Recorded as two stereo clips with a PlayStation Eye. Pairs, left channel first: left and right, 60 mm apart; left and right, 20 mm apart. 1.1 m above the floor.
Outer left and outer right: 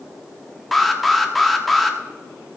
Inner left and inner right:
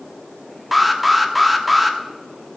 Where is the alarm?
Centre (ahead or behind), 1.2 m.